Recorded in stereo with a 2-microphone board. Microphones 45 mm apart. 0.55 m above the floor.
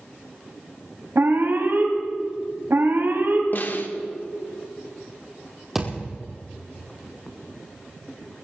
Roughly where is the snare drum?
Left.